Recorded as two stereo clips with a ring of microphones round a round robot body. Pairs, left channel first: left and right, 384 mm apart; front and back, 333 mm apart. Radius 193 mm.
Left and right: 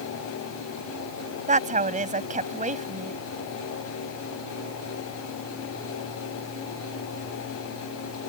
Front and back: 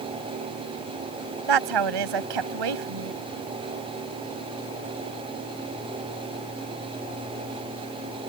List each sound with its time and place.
1.5 s a woman speaking: 160° right